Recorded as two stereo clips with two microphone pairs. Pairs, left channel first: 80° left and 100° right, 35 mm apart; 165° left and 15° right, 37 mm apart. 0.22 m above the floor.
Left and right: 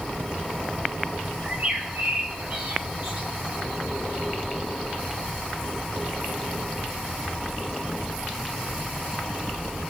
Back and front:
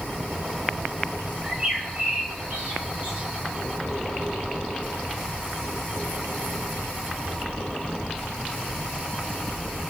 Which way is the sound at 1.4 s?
75° right.